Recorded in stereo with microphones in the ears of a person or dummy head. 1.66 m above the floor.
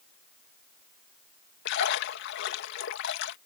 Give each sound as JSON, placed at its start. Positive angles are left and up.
{"t": 1.6, "sound": "a splash", "side_deg": 70}